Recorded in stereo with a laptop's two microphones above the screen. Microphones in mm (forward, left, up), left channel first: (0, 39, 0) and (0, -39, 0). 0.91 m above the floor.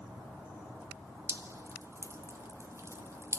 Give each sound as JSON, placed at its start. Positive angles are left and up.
{"t": 1.3, "sound": "dripping", "side_deg": -35, "distance_m": 1.4}